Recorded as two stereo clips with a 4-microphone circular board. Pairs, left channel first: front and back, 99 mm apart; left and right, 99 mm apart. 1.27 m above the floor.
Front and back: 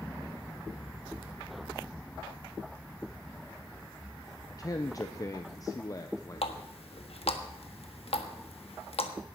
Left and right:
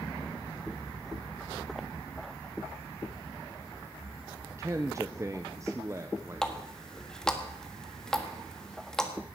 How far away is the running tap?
About 1.4 m.